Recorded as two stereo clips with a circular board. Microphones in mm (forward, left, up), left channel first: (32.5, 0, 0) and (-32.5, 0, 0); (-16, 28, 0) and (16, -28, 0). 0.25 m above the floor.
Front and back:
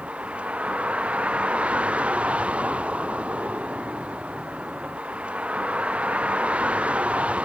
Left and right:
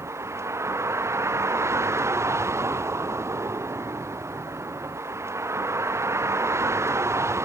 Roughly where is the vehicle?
Right.